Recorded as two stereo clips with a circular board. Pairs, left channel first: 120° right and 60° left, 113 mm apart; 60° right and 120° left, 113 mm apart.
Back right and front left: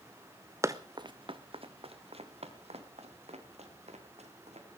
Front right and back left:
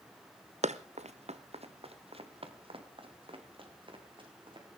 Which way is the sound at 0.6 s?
125° left.